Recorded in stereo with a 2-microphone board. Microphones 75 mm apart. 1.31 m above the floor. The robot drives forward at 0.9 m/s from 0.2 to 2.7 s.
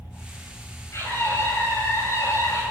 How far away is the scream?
About 8 m.